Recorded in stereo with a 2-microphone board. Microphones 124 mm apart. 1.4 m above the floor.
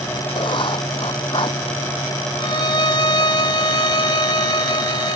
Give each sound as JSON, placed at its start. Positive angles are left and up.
{"t": 0.3, "sound": "writing", "side_deg": 40}
{"t": 2.4, "sound": "a violin", "side_deg": 35}